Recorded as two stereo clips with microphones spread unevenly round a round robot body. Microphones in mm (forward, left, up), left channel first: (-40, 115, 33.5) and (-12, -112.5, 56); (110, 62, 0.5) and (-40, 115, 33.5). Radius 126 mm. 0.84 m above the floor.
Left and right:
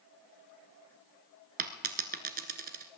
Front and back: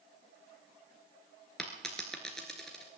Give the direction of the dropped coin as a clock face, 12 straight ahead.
4 o'clock.